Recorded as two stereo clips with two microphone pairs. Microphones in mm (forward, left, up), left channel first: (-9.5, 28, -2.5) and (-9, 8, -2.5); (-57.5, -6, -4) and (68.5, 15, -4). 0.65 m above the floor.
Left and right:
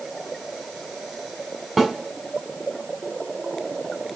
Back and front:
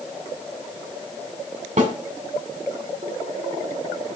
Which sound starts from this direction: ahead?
A snare drum, at 1.8 s.